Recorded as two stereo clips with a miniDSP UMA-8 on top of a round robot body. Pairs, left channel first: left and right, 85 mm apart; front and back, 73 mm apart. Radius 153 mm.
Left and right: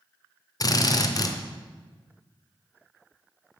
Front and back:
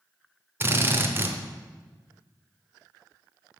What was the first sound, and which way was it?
A drill, 125° left.